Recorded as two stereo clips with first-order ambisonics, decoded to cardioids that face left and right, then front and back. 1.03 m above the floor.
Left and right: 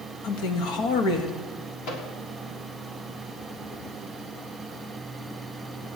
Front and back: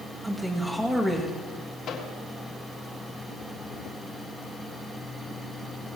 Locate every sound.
0.2 s a man speaking: 100° left, 1.5 m
1.9 s a microwave: 55° left, 1.9 m